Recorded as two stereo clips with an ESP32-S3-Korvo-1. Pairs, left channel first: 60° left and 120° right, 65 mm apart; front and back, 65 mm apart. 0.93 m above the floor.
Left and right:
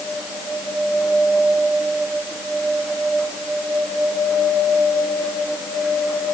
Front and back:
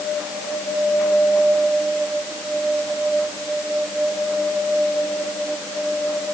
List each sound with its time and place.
Only background noise.